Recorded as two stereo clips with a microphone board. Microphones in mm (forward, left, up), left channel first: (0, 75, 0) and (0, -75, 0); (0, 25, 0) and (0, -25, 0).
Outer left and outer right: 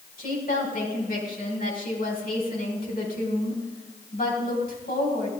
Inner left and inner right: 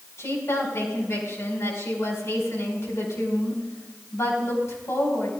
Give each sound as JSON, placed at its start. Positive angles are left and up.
{"t": 0.2, "sound": "a woman speaking", "side_deg": 65, "distance_m": 5.0}